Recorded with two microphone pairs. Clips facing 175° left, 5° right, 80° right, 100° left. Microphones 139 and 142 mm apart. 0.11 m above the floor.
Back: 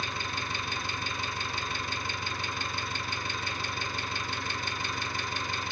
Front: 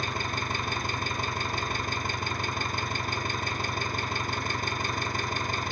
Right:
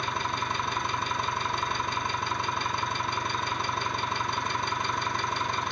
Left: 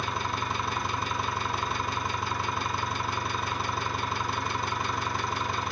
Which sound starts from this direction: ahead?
An engine running, at 0.0 s.